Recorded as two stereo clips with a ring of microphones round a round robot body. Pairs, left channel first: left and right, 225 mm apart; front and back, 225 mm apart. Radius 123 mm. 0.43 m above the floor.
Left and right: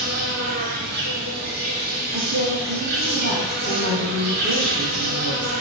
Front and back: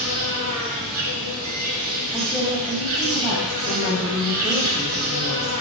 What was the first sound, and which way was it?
An insect, 145° right.